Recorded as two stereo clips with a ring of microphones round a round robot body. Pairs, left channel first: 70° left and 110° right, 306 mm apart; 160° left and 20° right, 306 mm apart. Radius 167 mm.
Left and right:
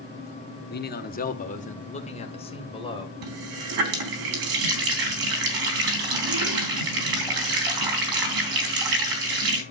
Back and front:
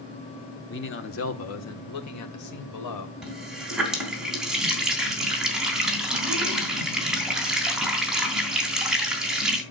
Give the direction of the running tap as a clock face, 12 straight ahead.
4 o'clock.